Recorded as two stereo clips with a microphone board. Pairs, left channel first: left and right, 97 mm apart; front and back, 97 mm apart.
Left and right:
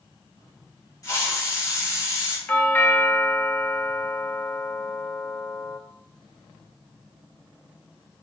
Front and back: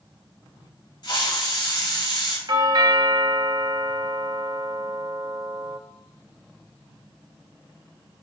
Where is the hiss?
40° left, 4 m.